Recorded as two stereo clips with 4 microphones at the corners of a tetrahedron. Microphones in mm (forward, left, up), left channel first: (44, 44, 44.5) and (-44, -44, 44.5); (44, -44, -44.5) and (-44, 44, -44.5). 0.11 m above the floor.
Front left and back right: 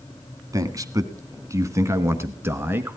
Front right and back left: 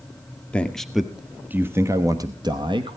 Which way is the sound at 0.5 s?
115° right.